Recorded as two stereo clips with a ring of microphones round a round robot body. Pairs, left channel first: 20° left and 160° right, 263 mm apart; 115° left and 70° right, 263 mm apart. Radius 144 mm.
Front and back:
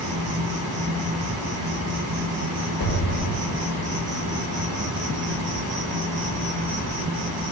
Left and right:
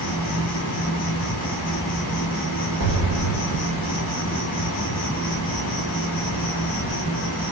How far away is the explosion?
About 1.9 m.